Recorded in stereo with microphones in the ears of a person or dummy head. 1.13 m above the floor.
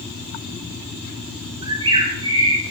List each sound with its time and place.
1.6 s a bird: 25° right (ahead or behind), 1.8 m